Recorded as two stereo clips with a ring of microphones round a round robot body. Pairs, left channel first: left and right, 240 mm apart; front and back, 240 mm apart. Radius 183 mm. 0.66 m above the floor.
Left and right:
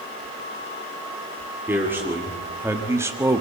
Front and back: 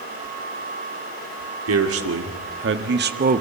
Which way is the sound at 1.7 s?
175° right.